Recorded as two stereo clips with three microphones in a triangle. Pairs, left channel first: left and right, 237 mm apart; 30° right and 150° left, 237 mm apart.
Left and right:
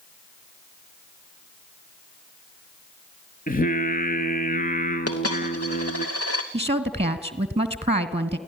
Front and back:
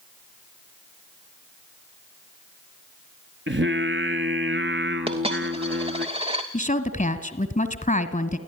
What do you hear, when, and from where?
3.5 s singing: 135° left, 1.4 m
5.1 s a dropped coin: 85° left, 2.5 m
6.5 s a woman speaking: 50° right, 1.3 m